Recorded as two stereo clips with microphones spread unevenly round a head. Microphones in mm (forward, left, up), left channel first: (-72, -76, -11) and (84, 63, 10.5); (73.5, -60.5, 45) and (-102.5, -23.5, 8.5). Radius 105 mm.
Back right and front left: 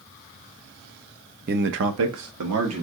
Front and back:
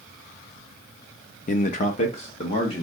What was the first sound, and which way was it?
A man speaking, 20° left.